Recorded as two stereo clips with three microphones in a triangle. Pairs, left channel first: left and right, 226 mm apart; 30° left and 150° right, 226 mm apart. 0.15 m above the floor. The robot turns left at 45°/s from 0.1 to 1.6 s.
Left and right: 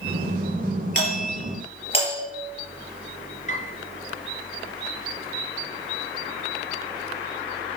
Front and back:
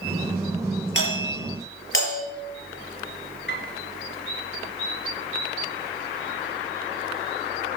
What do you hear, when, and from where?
0.9 s a doorbell: 60° left, 5 m; by 2.2 s 30° left, 5 m
3.5 s a piano: 45° left, 2.5 m